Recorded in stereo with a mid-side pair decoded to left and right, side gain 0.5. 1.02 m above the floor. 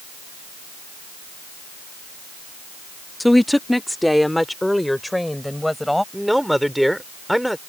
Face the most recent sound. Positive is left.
turn(degrees=0)